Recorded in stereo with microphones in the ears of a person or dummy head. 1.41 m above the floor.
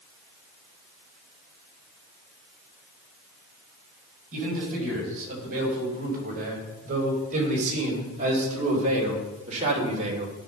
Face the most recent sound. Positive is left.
turn(degrees=-35)  # may be behind; listen again after turning